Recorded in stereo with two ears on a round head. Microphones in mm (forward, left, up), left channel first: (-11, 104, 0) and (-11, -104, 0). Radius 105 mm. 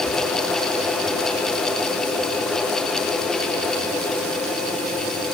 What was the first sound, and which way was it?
Only background noise.